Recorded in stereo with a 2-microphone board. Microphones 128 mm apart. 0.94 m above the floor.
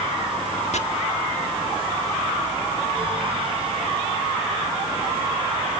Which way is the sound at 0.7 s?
65° left (ahead or behind).